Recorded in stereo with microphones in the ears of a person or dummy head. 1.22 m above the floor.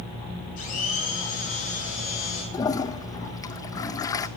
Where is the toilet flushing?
20° left (ahead or behind), 0.6 m.